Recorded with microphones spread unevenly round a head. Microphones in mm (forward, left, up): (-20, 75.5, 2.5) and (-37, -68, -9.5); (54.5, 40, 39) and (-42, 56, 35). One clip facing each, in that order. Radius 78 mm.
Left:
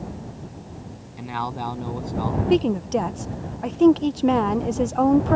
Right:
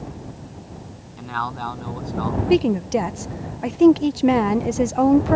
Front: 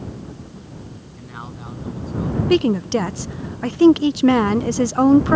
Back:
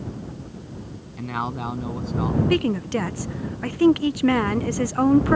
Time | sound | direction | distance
1.2 | a man speaking | 155° left | ?
2.5 | a woman speaking | 35° right | ?